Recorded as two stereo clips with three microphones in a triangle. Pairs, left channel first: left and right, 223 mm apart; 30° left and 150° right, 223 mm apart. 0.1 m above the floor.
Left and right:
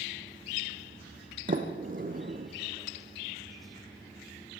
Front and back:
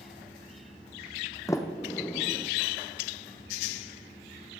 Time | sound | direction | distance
1.5 | a sliding door | 45° right | 1.7 m